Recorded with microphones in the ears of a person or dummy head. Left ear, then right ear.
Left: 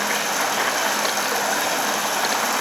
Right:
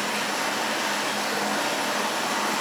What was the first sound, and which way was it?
Running water, 65° left (ahead or behind).